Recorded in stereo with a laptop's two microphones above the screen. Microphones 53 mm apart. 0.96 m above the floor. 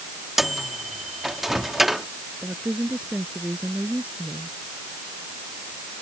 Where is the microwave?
5° right (ahead or behind).